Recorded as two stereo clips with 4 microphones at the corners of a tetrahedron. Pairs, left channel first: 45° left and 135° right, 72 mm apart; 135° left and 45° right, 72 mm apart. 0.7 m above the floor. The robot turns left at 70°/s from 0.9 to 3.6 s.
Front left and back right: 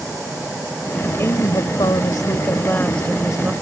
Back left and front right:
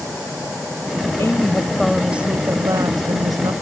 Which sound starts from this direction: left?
A woman speaking, at 1.2 s.